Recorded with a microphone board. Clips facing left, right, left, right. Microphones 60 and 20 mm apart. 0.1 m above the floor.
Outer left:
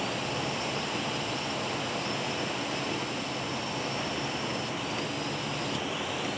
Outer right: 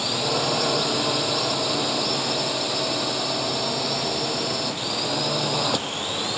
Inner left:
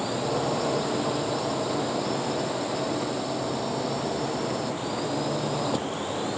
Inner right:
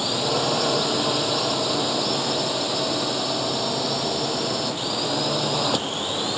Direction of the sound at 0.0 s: 65° right (ahead or behind).